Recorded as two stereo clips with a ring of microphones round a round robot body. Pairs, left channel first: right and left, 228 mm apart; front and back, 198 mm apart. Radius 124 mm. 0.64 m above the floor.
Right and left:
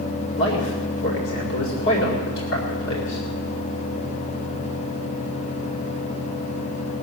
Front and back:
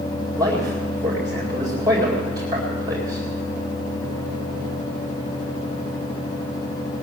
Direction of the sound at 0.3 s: 110° right.